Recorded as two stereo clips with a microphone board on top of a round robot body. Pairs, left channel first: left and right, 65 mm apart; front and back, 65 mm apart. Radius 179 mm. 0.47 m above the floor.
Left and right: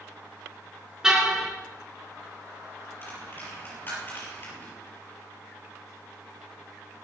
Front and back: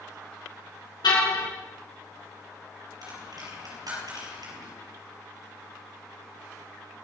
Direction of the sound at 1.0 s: 10° right.